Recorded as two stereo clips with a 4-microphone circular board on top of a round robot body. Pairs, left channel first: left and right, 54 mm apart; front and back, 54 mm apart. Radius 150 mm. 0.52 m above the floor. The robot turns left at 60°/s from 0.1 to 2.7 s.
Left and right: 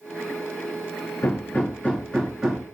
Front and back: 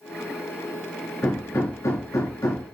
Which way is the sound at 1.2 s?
60° left.